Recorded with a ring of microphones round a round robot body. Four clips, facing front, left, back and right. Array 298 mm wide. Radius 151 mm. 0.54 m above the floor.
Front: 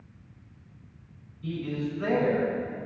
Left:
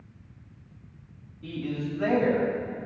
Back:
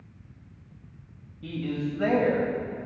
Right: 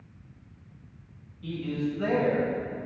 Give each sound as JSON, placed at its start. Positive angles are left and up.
{"t": 1.4, "sound": "a man speaking", "azimuth_deg": 165, "distance_m": 3.0}